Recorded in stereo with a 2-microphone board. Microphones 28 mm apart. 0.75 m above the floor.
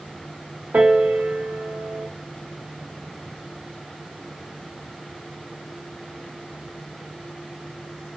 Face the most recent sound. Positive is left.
turn(degrees=-70)  # may be behind; listen again after turning